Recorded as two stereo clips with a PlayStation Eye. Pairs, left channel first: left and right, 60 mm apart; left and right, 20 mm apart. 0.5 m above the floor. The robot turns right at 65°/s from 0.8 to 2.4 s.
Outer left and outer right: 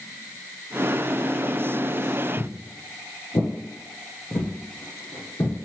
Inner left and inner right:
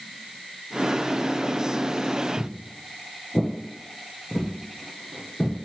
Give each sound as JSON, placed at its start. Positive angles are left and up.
{"t": 2.4, "sound": "footsteps", "side_deg": 10, "distance_m": 0.8}